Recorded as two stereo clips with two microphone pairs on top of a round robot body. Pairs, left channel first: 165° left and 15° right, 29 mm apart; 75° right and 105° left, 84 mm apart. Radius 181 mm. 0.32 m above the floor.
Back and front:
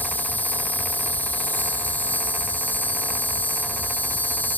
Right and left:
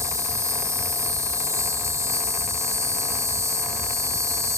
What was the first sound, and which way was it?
An insect, 155° left.